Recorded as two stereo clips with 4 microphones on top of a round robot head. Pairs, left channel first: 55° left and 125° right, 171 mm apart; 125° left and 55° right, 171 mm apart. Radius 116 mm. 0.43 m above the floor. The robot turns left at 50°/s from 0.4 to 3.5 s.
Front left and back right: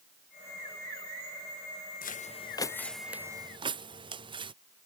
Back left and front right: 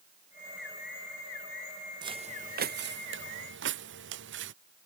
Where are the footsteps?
15° left; by 4.5 s 65° right.